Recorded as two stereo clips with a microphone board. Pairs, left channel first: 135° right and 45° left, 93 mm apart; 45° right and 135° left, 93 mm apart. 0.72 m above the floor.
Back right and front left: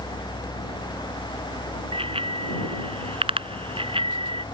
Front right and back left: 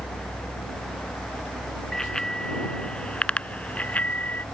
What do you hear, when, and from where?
1.9 s a bicycle bell: 40° left; by 4.5 s 30° left